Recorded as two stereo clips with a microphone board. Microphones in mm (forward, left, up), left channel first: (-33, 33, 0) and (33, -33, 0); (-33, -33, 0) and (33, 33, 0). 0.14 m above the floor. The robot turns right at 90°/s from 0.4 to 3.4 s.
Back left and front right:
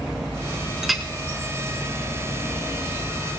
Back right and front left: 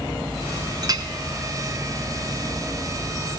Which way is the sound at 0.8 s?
35° left.